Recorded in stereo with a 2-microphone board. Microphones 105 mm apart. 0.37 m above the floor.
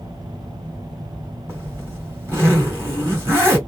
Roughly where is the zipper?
Right.